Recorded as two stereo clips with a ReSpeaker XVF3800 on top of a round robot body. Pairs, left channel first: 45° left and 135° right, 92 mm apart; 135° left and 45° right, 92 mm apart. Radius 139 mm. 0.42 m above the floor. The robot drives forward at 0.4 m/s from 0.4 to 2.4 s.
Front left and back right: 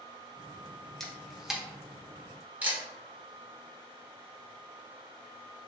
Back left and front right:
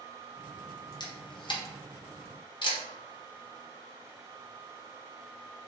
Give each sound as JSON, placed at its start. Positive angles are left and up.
{"t": 1.0, "sound": "a camera shutter", "azimuth_deg": 130, "distance_m": 1.0}